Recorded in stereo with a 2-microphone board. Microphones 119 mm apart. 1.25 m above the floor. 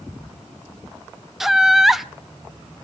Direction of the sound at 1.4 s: Centre (ahead or behind).